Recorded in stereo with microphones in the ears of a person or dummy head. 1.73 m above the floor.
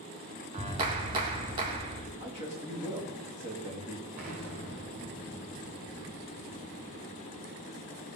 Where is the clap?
25° right (ahead or behind), 1.8 m.